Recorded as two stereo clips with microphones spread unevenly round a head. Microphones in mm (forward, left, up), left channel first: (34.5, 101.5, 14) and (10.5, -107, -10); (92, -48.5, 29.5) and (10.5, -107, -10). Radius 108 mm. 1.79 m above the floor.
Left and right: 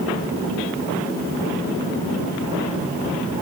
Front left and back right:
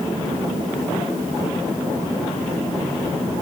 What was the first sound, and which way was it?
Only background noise.